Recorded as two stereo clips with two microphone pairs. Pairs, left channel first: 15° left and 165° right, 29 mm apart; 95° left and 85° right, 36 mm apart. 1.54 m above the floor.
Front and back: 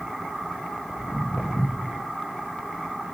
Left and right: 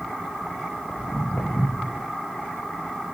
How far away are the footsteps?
About 4 m.